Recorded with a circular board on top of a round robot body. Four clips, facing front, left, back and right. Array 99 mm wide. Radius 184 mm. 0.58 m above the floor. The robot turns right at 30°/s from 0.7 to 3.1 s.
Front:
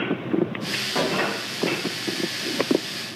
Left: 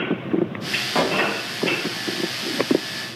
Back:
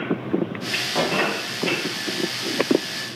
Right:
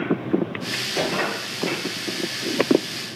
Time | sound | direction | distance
0.9 | a pop | 90° left | 5 m